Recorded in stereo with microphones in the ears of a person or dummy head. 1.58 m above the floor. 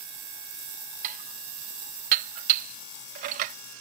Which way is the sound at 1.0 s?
50° right (ahead or behind).